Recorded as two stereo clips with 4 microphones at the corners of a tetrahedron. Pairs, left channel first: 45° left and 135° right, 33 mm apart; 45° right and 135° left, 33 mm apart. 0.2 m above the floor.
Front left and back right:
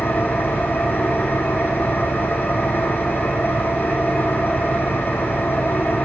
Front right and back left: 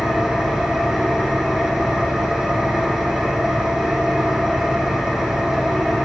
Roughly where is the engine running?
Ahead left.